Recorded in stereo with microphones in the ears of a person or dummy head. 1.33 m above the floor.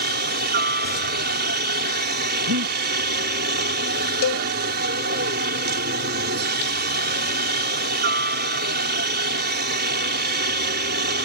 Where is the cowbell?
75° left (ahead or behind).